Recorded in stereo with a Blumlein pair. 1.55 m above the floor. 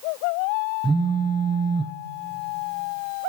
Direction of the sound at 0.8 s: 10° right.